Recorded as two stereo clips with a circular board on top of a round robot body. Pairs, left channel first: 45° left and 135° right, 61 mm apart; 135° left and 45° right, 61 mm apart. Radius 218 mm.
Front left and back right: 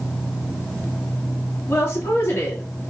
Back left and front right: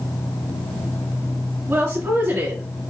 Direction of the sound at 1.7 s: 5° left.